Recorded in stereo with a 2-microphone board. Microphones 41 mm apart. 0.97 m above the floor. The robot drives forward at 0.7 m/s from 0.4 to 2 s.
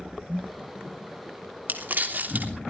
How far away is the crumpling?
About 2.5 m.